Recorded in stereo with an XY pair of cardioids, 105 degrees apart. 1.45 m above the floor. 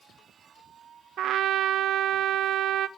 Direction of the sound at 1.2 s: 70° right.